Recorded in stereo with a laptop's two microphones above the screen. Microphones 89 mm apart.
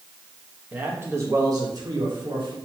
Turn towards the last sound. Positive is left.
turn(degrees=-60)  # may be behind; listen again after turning